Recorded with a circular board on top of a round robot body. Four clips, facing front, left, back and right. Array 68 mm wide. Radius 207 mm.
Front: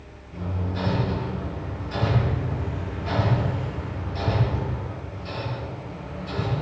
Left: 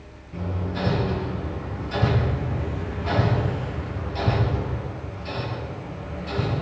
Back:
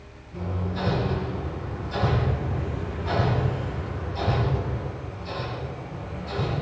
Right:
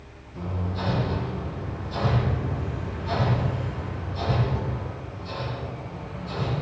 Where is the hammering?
70° left, 9 m.